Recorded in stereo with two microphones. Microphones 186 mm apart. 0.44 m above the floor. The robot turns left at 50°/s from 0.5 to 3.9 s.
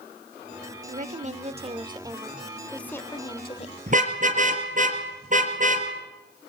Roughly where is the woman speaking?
Right.